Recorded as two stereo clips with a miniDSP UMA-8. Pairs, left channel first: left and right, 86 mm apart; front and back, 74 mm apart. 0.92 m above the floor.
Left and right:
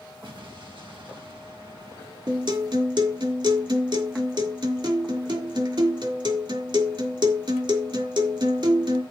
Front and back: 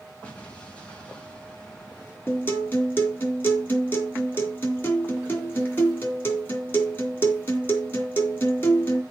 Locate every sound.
0.2 s an explosion: 75° right, 3.5 m
2.3 s a guitar: 65° right, 4 m